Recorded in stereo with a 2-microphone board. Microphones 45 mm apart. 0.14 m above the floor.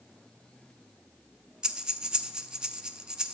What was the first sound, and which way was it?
Breathing, 20° right (ahead or behind).